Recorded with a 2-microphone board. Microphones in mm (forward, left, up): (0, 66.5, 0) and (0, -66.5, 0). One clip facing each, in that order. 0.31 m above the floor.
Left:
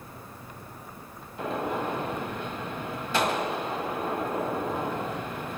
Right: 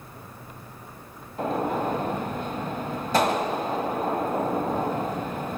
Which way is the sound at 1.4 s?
40° right (ahead or behind).